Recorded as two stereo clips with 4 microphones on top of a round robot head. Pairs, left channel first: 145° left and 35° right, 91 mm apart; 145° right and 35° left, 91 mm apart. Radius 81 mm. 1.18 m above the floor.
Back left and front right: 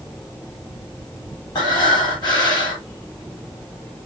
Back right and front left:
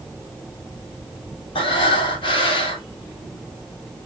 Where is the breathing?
175° right, 3 m.